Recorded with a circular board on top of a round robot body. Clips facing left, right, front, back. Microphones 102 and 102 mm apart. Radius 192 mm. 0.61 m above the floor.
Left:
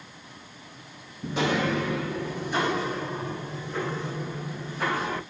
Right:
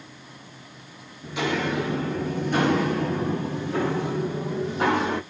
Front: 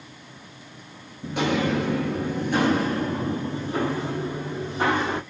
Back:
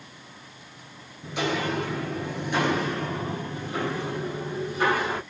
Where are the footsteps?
55° left, 0.6 m; by 5.2 s 70° right, 2 m.